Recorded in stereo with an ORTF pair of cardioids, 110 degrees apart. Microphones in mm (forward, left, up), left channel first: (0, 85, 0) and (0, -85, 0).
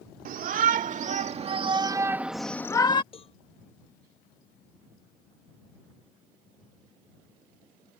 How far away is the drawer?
No drawer in this recording.